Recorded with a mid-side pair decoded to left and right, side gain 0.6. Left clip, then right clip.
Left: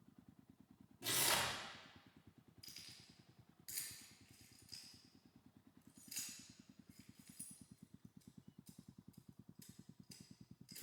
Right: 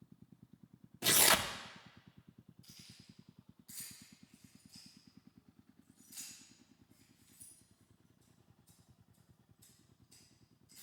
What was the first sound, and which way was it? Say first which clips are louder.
Tearing paper: right 8 dB; 60° right.